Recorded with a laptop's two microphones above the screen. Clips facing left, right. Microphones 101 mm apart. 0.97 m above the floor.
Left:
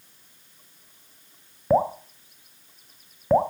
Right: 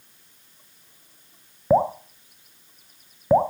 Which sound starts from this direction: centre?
Dripping, at 1.7 s.